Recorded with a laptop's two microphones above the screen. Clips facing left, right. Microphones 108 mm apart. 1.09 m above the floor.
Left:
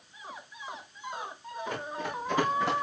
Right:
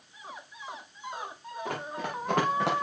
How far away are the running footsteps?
About 4.5 m.